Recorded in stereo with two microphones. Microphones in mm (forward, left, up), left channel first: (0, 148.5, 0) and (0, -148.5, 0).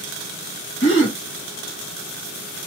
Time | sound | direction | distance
0.8 | a gasp | 45° left (ahead or behind) | 1.2 m